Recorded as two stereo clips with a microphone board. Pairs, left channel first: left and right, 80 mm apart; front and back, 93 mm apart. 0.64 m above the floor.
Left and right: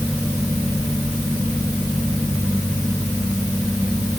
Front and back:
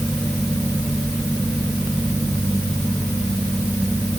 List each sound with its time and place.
Only background noise.